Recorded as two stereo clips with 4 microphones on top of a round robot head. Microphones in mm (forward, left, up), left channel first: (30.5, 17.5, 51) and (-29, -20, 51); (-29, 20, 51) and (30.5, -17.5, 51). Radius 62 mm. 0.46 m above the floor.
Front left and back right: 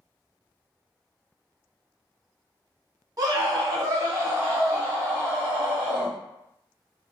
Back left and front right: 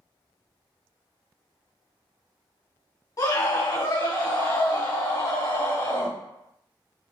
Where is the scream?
Straight behind, 1.6 m; by 6.2 s 145° left, 2.5 m.